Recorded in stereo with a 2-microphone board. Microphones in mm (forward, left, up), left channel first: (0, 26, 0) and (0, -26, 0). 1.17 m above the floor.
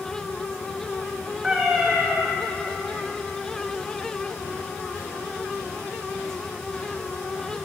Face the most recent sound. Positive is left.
turn(degrees=-5)  # may be behind; listen again after turning